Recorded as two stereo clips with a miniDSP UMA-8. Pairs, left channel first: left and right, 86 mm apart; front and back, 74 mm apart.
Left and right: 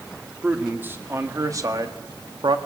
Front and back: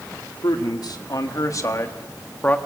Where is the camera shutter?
I don't hear a camera shutter.